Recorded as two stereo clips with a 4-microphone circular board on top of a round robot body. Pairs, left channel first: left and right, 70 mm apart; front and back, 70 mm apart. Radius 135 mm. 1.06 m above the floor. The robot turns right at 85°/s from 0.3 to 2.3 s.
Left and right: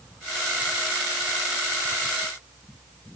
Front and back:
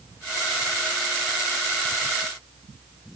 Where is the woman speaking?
I don't hear a woman speaking.